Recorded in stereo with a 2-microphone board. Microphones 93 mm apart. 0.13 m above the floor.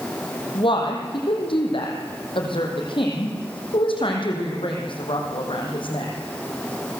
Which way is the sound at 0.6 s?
65° left (ahead or behind).